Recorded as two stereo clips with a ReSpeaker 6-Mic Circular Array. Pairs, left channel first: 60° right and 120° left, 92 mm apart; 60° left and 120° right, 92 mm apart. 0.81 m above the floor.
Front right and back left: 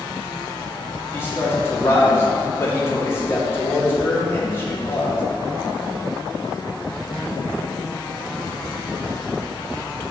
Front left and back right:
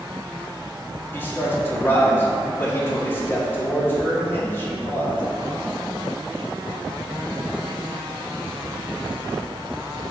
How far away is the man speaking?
About 1.8 m.